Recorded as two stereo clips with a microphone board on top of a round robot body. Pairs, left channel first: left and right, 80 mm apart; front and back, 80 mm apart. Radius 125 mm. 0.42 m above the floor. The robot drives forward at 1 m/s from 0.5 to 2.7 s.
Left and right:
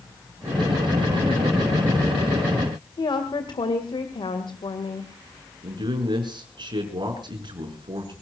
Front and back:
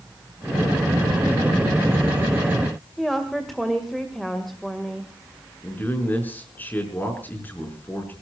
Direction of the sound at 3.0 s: 90° left.